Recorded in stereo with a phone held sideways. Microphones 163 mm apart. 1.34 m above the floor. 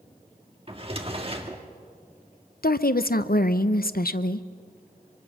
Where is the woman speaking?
70° left (ahead or behind), 0.7 m.